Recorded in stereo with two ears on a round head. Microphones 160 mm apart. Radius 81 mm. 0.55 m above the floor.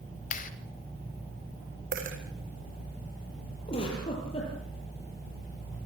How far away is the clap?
About 1.8 m.